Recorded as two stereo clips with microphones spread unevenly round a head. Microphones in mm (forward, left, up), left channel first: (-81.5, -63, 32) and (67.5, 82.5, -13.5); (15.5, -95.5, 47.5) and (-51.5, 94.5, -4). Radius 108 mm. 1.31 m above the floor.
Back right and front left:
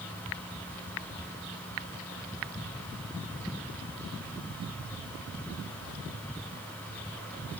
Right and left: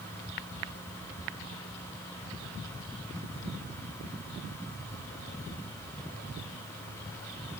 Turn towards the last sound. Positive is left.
No sound to turn to.